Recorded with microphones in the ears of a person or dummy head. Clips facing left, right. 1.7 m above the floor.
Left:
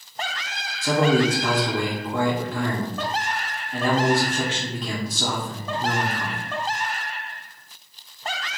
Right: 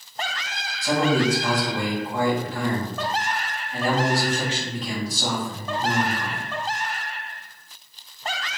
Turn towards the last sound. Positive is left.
turn(degrees=50)  # may be behind; listen again after turning